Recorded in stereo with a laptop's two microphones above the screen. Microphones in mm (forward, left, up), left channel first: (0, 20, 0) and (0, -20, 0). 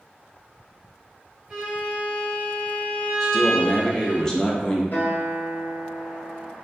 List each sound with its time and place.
1.5 s a violin: 25° right (ahead or behind), 1.6 m
3.2 s a man speaking: 15° left (ahead or behind), 0.7 m
4.9 s a guitar: 50° left (ahead or behind), 1.8 m